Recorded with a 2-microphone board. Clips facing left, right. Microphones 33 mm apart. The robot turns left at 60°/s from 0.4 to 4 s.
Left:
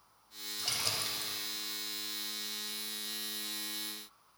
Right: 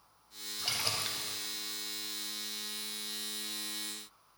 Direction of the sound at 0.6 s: 35° right.